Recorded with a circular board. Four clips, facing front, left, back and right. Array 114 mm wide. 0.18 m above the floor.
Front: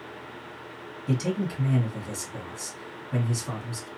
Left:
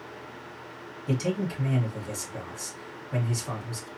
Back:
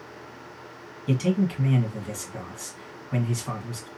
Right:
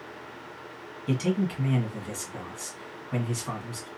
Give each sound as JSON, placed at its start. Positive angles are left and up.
{"t": 1.1, "sound": "a man speaking", "azimuth_deg": -140, "distance_m": 1.3}